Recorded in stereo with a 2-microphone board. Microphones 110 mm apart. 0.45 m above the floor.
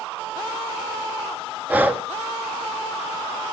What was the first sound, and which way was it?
Breathing, 15° right (ahead or behind).